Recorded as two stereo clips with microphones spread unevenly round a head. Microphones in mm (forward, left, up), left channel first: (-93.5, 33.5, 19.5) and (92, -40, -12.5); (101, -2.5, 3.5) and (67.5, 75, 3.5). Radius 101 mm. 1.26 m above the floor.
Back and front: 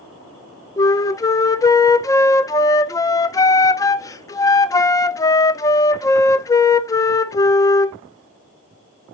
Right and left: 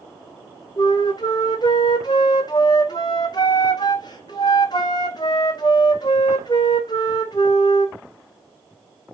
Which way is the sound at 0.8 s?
130° right.